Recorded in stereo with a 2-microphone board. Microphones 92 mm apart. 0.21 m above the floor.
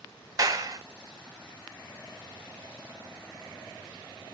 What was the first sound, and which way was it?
A clap, 35° right (ahead or behind).